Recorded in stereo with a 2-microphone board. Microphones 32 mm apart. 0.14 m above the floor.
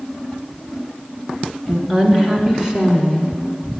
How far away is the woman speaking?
About 1.6 m.